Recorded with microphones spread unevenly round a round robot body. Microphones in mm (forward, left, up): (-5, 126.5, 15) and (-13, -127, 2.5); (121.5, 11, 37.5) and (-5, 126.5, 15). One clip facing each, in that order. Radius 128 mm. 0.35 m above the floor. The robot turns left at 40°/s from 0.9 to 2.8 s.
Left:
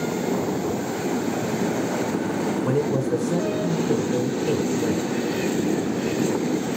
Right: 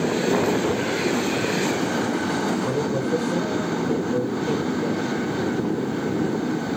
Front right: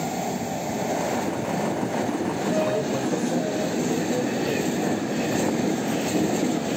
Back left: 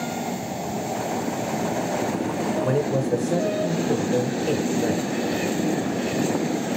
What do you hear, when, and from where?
2.6 s a man speaking: 120° left, 1.2 m; by 5.1 s 110° left, 1.2 m